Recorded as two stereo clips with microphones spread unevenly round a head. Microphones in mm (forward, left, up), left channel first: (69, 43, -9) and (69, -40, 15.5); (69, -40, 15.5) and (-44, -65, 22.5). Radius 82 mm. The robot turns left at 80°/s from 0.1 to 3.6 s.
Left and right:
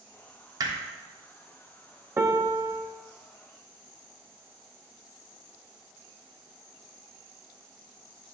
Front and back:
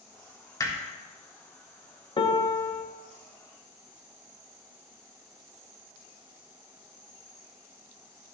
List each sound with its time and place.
0.6 s hammering: 50° right, 1.4 m; by 0.8 s 60° right, 1.4 m
2.2 s a piano: 20° right, 0.8 m; by 2.8 s 75° right, 0.8 m